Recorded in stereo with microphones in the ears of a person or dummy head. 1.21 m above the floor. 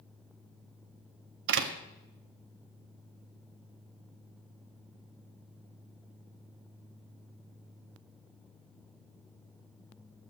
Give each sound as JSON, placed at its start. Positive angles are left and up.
{"t": 1.5, "sound": "a door slam", "side_deg": -80, "distance_m": 1.3}